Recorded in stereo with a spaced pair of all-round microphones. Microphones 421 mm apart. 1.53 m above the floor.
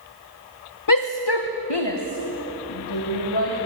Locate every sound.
0.9 s a shout: 50° left (ahead or behind), 1.0 m; by 3.6 s 70° left (ahead or behind), 3.5 m